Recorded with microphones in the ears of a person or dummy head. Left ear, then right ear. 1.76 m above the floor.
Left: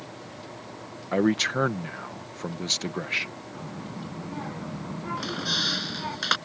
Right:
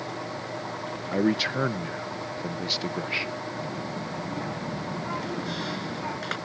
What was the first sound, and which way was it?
A man speaking, 30° left (ahead or behind).